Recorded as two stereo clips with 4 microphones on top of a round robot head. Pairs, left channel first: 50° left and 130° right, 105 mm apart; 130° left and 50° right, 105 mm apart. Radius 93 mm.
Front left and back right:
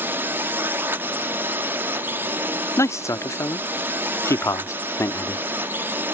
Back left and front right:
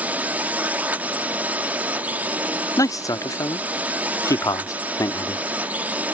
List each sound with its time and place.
0.0 s a drone: 100° right
2.8 s a man speaking: 95° left